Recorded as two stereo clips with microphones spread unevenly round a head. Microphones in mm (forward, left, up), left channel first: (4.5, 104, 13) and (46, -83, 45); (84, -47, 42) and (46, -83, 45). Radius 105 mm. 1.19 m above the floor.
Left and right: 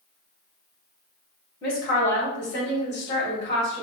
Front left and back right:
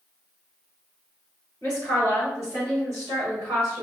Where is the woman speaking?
145° left, 2.0 m; by 3.8 s 165° left, 3.5 m.